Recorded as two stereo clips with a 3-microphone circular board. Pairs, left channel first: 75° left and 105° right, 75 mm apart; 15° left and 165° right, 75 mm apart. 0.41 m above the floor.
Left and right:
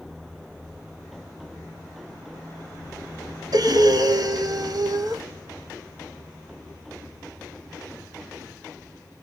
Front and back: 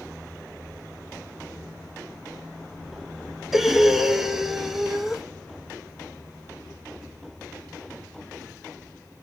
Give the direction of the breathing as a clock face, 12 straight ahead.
3 o'clock.